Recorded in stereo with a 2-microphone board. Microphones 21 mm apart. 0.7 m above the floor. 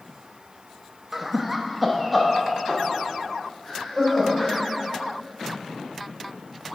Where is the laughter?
15° right (ahead or behind), 0.7 m; by 4.6 s 10° left (ahead or behind), 3 m.